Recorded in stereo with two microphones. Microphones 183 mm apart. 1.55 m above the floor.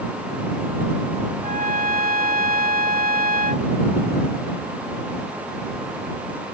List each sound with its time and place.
1.4 s a trumpet: 60° right (ahead or behind)